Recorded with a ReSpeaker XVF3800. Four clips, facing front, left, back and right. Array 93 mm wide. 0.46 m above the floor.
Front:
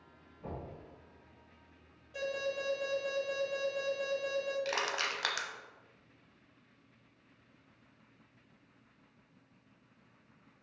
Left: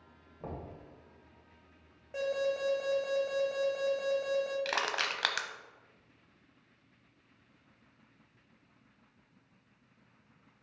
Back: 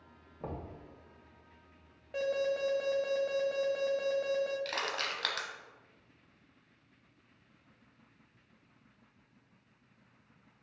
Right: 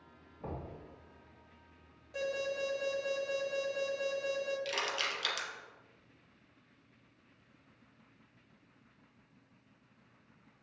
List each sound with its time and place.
0.4 s knocking: 155° left, 1.9 m
2.1 s an alarm: 150° left, 1.9 m
4.7 s crushing: 80° left, 0.7 m